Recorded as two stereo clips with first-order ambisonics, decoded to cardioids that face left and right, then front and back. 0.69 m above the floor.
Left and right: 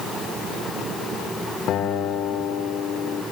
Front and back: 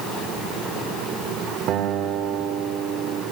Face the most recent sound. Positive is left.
turn(degrees=140)